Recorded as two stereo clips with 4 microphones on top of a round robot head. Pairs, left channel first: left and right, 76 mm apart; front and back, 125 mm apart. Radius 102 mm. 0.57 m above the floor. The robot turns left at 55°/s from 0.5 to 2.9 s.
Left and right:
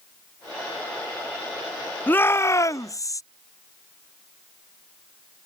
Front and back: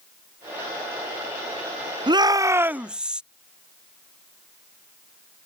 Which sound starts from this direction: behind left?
A shout, at 2.1 s.